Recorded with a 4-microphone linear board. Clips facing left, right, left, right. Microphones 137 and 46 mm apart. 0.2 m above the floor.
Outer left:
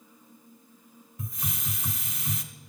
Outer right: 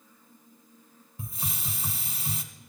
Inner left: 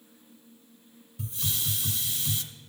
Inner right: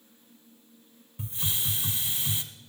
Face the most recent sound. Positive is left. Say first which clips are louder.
# outer left 1 dB, even
turn(degrees=-30)  # may be behind; listen again after turning